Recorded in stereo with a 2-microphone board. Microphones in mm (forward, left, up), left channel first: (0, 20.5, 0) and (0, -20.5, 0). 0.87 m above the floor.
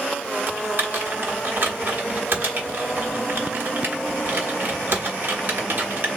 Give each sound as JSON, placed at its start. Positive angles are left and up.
{"t": 0.5, "sound": "typing on a keyboard", "side_deg": -50, "distance_m": 1.1}